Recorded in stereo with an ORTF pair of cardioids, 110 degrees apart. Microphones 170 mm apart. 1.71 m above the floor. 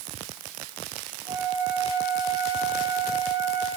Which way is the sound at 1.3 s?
25° right.